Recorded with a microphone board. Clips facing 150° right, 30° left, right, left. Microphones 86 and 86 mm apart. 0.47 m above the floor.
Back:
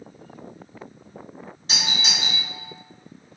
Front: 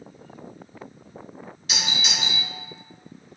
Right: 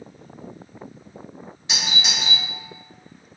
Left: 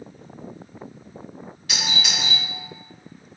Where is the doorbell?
140° right, 1.6 m.